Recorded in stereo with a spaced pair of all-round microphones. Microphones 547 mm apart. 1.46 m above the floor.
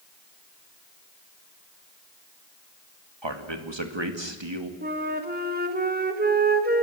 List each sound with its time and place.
3.2 s a man speaking: 50° right (ahead or behind), 2 m
4.8 s a flute: 15° right (ahead or behind), 1.5 m